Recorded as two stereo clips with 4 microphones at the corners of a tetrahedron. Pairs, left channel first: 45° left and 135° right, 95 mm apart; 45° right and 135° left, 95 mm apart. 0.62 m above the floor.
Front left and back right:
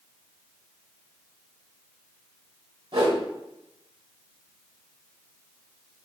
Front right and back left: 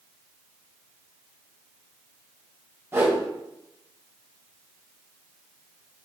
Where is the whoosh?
160° right, 0.8 m.